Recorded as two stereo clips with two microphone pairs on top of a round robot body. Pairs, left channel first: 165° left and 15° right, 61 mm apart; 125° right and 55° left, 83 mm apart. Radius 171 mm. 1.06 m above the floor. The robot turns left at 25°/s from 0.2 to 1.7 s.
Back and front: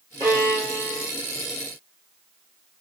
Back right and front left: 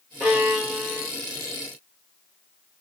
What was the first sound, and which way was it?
A violin, 15° right.